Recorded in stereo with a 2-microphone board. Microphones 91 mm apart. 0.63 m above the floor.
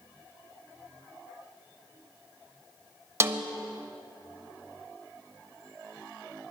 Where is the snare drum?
30° right (ahead or behind), 0.5 m.